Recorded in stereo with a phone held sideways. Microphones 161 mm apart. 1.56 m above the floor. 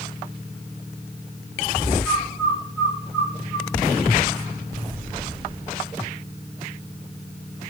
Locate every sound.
2.0 s a bird: 85° left, 7 m